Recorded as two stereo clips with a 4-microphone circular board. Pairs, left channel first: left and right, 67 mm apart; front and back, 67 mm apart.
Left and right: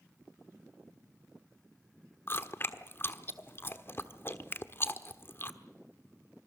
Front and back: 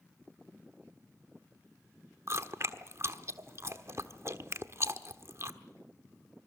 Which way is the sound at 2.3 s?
140° left.